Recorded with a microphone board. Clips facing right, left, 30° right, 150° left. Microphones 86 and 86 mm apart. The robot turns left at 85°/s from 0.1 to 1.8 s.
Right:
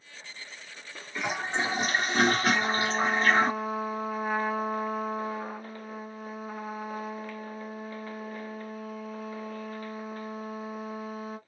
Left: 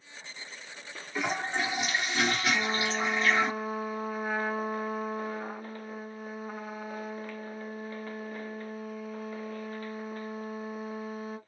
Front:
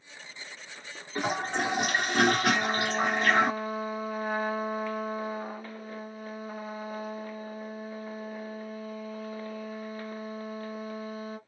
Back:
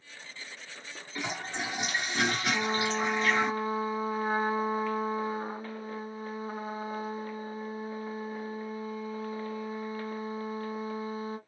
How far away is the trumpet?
About 1.4 m.